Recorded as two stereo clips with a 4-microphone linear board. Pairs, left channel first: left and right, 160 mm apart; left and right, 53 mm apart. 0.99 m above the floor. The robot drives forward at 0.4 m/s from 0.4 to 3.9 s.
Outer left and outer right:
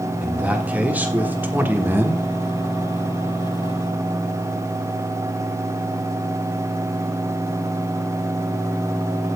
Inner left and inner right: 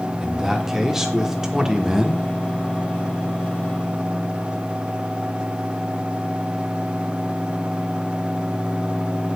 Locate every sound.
0.2 s a man speaking: 10° right (ahead or behind), 1.6 m; by 2.2 s 15° right (ahead or behind), 1.0 m